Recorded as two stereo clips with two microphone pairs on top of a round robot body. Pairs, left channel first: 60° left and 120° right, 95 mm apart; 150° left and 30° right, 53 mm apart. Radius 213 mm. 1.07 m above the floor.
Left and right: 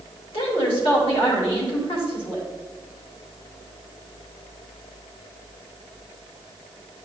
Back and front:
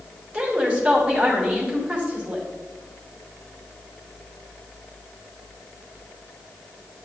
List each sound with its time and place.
0.3 s a woman speaking: 40° left, 3 m